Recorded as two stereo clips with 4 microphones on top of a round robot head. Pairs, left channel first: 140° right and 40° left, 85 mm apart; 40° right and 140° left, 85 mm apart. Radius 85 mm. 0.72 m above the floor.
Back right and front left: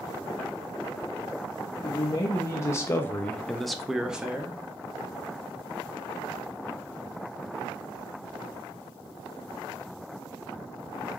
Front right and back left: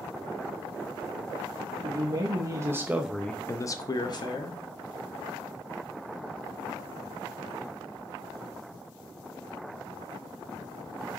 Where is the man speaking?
165° left, 1.0 m; by 4.6 s 35° right, 1.0 m.